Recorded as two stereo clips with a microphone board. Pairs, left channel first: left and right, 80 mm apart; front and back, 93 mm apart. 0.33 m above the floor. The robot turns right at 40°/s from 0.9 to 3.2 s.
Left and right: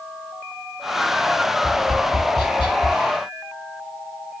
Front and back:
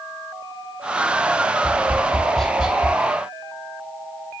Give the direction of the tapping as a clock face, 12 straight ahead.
10 o'clock.